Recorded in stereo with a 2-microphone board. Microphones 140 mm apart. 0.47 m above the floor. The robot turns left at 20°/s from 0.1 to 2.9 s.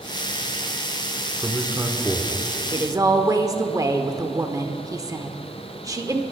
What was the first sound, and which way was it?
A man speaking, 15° right (ahead or behind).